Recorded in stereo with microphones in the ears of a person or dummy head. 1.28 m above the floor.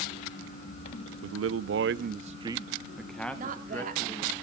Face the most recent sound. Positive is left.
turn(degrees=-45)  # may be behind; listen again after turning